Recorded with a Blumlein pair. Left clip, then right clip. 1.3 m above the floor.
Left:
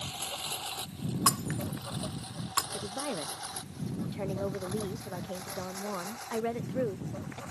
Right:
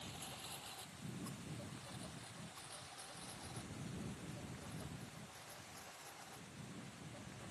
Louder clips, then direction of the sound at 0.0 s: Left 14 dB; 35° left.